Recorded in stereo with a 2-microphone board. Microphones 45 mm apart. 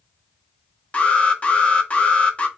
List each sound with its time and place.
0.9 s an alarm: 25° left (ahead or behind), 0.6 m